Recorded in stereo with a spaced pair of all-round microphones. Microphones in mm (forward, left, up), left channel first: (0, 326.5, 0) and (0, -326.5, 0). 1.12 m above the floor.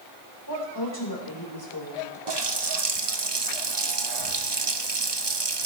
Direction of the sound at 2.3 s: 40° right (ahead or behind).